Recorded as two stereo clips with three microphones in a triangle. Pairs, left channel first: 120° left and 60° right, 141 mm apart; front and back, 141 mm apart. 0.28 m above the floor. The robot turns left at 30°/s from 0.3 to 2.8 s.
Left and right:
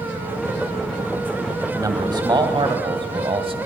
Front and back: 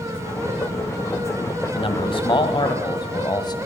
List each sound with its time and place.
1.8 s a man speaking: 10° right, 1.2 m; by 3.6 s 40° right, 1.2 m